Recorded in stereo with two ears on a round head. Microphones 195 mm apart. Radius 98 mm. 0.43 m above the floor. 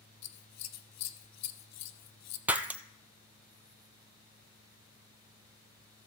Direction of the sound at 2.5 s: 10° right (ahead or behind).